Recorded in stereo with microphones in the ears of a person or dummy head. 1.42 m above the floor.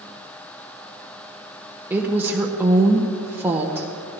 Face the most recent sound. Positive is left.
turn(degrees=-10)  # may be behind; listen again after turning